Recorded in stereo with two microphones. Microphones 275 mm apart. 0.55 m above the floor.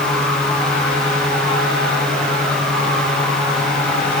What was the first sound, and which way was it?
Only background noise.